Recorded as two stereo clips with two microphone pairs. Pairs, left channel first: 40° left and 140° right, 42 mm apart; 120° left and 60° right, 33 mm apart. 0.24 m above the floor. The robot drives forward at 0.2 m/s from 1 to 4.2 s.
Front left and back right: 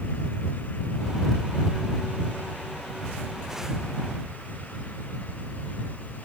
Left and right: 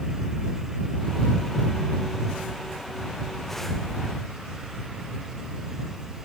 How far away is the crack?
No crack in this recording.